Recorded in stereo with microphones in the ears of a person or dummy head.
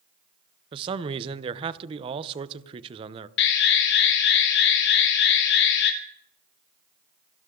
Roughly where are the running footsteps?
No running footsteps in this recording.